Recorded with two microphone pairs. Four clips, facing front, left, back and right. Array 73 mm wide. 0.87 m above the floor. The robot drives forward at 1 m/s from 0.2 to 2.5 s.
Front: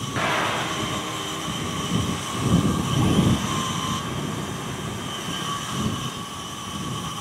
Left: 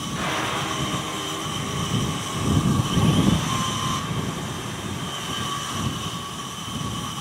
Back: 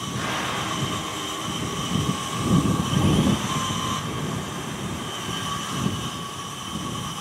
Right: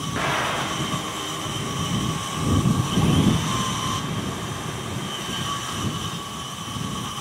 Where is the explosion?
35° right, 2.5 m; by 0.9 s 50° right, 1.7 m.